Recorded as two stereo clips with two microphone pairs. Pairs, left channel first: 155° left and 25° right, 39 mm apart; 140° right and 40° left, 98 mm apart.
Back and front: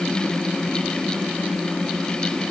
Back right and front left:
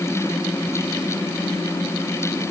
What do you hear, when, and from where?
Only background noise.